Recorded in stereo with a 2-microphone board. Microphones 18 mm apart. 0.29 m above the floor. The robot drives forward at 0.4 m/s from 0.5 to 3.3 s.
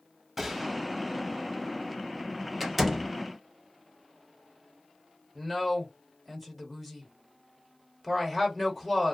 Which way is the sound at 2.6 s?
Centre (ahead or behind).